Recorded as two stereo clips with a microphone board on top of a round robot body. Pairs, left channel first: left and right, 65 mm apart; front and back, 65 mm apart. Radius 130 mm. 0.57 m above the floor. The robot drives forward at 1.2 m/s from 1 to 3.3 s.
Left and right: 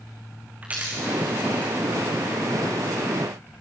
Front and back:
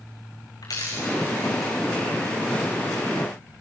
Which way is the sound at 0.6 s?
25° right.